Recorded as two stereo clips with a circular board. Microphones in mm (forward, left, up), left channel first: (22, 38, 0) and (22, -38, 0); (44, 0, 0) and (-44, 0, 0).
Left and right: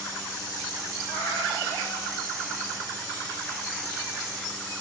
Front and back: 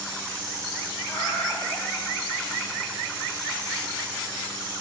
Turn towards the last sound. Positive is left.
turn(degrees=80)